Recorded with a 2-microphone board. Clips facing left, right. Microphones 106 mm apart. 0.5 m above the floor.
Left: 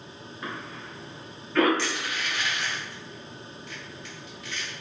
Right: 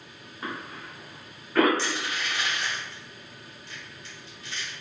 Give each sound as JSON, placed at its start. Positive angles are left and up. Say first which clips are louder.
{"t": 0.4, "sound": "a cough", "louder": "right 1 dB", "side_deg": -20, "distance_m": 0.9}
{"t": 1.8, "sound": "crushing", "louder": "even", "side_deg": -30, "distance_m": 1.4}